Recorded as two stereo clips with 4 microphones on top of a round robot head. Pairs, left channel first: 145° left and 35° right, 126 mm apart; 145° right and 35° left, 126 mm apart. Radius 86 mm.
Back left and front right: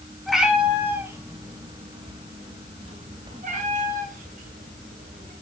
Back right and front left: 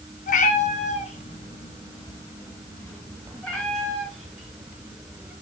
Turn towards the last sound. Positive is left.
turn(degrees=-45)